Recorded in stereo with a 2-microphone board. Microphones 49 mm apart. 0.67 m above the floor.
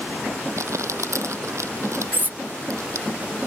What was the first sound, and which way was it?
Crumpling, 85° right.